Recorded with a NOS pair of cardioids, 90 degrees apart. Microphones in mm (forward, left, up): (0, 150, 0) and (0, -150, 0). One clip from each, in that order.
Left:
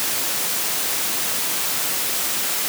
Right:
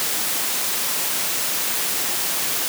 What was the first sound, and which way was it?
Only background noise.